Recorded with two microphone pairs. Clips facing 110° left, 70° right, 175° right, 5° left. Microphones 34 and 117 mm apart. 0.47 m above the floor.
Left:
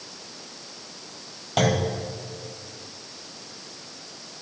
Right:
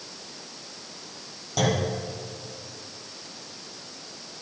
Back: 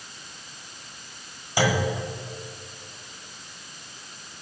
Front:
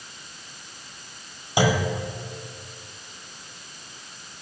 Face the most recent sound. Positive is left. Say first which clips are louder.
# left 2 dB, front 2 dB
turn(degrees=75)